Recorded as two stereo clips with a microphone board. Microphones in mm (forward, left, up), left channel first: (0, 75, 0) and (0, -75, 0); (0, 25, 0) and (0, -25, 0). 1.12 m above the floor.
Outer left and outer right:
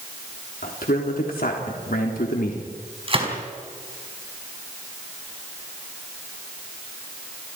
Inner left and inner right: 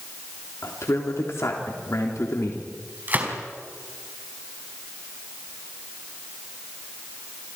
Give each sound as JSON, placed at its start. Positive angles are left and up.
{"t": 0.6, "sound": "a man speaking", "side_deg": 75, "distance_m": 3.5}
{"t": 3.1, "sound": "a gunshot", "side_deg": -40, "distance_m": 4.5}